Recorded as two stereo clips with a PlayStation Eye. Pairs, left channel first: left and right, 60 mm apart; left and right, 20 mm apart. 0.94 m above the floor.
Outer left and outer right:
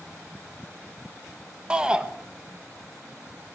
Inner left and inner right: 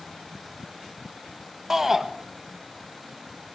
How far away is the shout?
About 1.0 m.